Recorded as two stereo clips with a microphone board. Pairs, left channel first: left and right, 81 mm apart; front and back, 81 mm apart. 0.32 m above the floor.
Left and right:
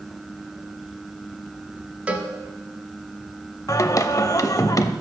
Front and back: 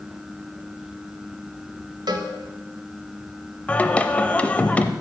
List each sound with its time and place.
2.1 s a cowbell: 165° right, 1.1 m
3.7 s singing: 65° left, 0.6 m